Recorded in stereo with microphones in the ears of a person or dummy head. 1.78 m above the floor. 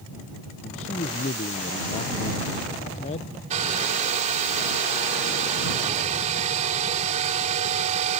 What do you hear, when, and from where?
0.6 s a man speaking: 40° left (ahead or behind)
3.5 s a hair dryer: 40° right (ahead or behind)